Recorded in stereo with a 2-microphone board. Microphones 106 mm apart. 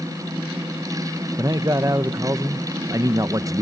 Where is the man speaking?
35° right (ahead or behind), 0.6 m.